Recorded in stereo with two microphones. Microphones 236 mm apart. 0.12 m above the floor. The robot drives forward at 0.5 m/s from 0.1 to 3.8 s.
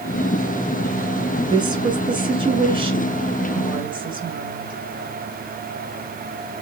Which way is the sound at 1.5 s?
20° right (ahead or behind).